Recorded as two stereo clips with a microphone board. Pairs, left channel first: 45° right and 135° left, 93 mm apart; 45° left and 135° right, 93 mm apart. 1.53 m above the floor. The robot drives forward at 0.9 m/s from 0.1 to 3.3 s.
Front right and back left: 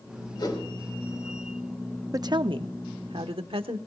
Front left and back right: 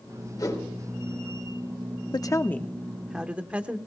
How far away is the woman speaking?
About 0.7 m.